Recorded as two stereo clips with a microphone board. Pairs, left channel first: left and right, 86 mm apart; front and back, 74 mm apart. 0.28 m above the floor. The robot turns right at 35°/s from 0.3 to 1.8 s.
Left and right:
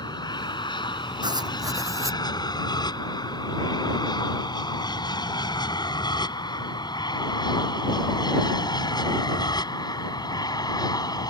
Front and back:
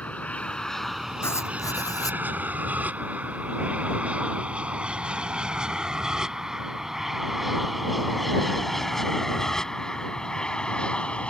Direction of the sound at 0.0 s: 70° left.